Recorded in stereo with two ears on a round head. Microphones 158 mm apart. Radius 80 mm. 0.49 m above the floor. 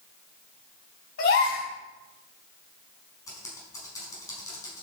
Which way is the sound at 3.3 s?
20° left (ahead or behind).